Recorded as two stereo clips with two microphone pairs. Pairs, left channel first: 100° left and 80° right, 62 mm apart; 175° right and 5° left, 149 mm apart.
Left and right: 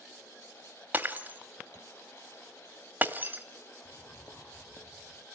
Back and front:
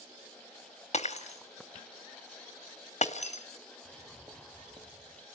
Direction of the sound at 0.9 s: 135° right.